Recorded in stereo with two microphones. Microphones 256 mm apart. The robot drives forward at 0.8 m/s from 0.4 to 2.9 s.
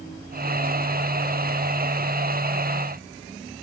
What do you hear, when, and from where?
Only background noise.